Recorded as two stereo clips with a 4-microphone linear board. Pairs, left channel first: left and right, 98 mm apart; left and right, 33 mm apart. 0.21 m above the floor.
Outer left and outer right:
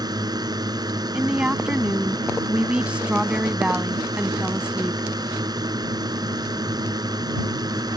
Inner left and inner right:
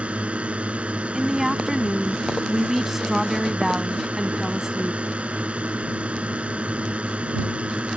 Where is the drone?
45° right (ahead or behind).